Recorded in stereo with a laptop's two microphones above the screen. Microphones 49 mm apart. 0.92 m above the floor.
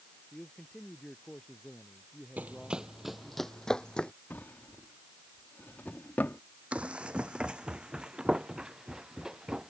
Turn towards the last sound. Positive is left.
turn(degrees=-10)  # may be behind; listen again after turning